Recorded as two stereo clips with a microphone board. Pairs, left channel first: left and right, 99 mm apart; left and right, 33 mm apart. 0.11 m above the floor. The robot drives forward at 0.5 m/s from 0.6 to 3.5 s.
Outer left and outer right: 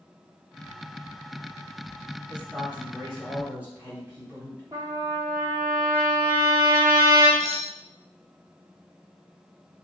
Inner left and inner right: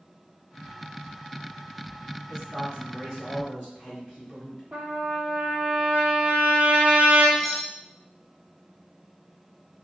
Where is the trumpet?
30° right (ahead or behind), 1.5 m.